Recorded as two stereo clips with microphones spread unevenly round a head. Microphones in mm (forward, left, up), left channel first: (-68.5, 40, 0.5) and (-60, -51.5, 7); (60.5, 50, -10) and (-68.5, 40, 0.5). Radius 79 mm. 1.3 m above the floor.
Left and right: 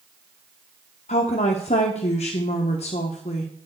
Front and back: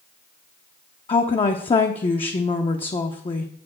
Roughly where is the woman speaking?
Ahead left.